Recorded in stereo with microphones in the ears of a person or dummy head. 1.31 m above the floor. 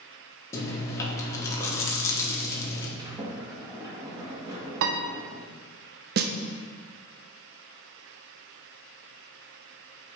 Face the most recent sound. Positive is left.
turn(degrees=-45)  # may be behind; listen again after turning